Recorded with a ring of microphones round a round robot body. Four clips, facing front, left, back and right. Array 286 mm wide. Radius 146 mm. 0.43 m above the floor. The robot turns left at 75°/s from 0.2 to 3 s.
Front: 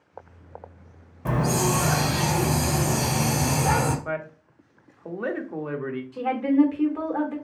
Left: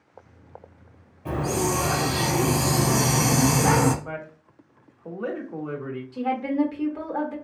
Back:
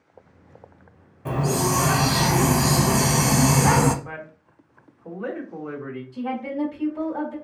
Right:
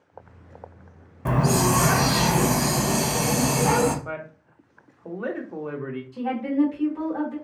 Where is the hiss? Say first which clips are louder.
Right 4 dB, even; 70° right, 0.7 m; by 4.0 s 160° left, 0.7 m.